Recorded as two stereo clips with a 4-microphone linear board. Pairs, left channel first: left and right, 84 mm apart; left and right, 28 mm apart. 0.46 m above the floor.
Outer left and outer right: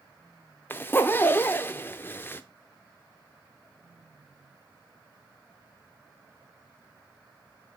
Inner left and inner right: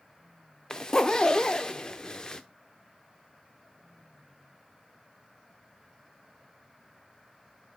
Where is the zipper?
25° left (ahead or behind), 0.6 m.